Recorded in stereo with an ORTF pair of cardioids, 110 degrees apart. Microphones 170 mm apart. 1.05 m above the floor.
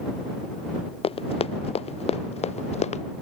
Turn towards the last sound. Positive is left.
turn(degrees=40)